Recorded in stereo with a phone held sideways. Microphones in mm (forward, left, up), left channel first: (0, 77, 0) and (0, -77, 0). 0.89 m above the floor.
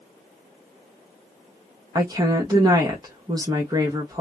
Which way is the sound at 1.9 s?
25° right (ahead or behind).